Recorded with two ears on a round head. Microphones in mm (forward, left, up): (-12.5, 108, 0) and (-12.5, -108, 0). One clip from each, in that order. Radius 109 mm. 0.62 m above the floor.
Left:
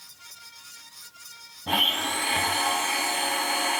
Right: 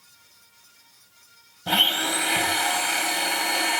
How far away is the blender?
About 3.5 m.